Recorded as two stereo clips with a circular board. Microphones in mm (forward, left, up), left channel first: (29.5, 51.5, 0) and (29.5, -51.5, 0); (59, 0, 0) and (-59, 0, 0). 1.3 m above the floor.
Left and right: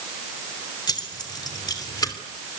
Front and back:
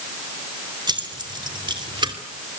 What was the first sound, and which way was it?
Keys jangling, 135° left.